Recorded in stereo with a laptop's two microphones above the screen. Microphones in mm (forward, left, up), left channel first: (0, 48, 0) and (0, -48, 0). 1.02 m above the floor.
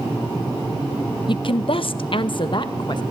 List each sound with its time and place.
1.3 s a woman speaking: 50° left (ahead or behind), 0.6 m